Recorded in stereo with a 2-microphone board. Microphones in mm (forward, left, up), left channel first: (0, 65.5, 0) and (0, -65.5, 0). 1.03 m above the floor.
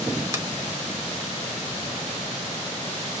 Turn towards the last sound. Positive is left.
turn(degrees=-25)  # may be behind; listen again after turning